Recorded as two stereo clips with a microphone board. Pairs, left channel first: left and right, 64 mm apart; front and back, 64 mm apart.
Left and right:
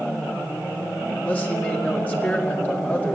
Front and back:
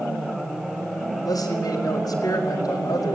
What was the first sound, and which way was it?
A man speaking, 25° left.